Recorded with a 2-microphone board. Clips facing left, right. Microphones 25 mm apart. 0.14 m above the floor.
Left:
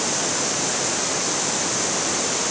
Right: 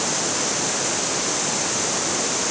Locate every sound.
Only background noise.